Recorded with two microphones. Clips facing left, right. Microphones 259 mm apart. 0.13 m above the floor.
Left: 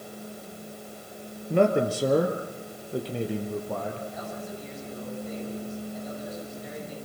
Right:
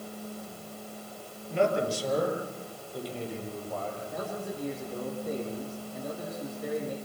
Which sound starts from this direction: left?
A man speaking, at 1.5 s.